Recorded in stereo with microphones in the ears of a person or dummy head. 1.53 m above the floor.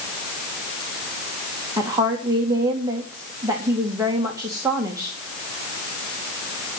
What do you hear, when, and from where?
1.8 s a woman speaking: 10° right (ahead or behind), 1.9 m